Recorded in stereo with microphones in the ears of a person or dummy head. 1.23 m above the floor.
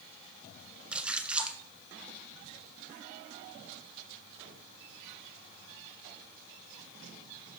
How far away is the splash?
About 1.0 m.